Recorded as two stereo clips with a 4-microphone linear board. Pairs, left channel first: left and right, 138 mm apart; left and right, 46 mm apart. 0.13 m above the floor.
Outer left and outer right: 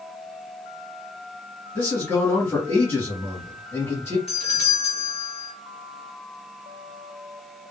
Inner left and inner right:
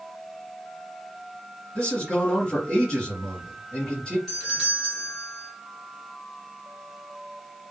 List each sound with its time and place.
1.8 s a man speaking: 15° left (ahead or behind), 1.8 m
4.3 s a doorbell: 5° left (ahead or behind), 1.6 m